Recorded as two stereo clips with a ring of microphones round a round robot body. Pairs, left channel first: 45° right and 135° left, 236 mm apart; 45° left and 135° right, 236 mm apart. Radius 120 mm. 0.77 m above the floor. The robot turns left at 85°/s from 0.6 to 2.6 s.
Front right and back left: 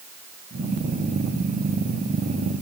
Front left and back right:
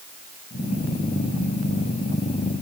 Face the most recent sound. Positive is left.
No sound to turn to.